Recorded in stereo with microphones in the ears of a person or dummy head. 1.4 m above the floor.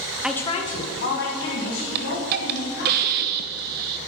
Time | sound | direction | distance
0.2 | a woman speaking | 5° right (ahead or behind) | 0.6 m
1.9 | a hiss | 50° right (ahead or behind) | 0.6 m